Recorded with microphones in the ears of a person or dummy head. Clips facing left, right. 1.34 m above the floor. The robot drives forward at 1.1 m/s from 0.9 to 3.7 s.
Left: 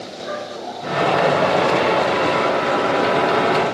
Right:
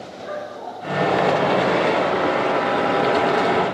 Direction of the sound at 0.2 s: 45° left (ahead or behind).